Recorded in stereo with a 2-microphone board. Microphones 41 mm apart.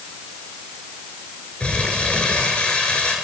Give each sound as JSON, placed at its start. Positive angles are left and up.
{"t": 1.6, "sound": "crumpling", "side_deg": 30, "distance_m": 4.0}